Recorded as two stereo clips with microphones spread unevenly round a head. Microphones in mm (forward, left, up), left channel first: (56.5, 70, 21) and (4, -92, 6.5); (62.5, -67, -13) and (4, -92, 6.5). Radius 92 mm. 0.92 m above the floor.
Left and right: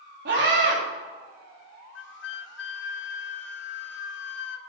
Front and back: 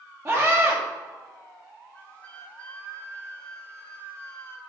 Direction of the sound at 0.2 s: 100° right.